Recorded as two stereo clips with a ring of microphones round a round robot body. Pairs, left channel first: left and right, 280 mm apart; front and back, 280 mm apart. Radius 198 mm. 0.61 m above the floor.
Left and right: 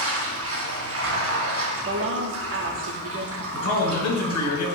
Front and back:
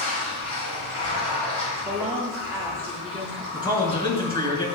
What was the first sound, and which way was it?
Running water, 55° right.